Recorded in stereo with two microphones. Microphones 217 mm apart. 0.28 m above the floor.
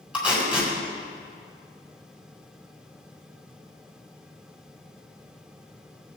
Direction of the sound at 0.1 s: 5° right (ahead or behind).